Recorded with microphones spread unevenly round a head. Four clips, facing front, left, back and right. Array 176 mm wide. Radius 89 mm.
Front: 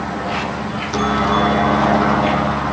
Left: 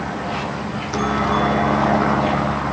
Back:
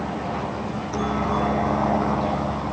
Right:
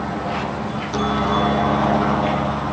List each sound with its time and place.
0.0 s a helicopter: 15° right; by 2.7 s 15° left